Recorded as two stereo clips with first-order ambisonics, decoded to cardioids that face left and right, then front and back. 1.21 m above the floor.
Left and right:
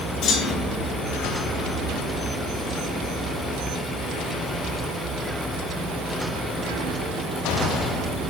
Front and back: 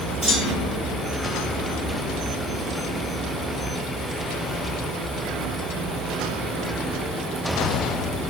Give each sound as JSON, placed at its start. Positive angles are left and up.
{"t": 0.2, "sound": "a clunk", "azimuth_deg": 125, "distance_m": 4.5}